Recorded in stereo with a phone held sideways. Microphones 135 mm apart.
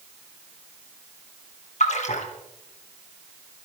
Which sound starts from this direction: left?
A splash, at 1.8 s.